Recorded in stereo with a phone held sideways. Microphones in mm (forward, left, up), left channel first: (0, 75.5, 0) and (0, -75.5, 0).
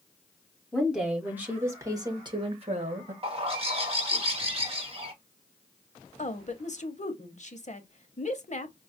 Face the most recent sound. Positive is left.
turn(degrees=50)  # may be behind; listen again after turning